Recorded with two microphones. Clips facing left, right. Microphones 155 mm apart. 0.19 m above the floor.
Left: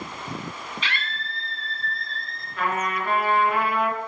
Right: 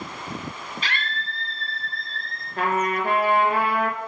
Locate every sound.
0.8 s a scream: 40° right (ahead or behind), 1.6 m; by 2.5 s 20° right (ahead or behind), 2.5 m
2.6 s a trumpet: 40° right (ahead or behind), 2 m